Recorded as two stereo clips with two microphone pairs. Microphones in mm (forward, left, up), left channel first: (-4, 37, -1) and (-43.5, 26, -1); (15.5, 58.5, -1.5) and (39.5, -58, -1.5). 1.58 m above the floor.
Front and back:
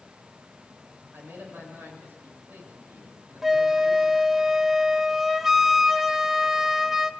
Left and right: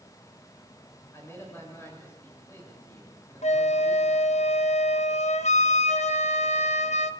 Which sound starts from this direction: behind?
A man speaking, at 1.1 s.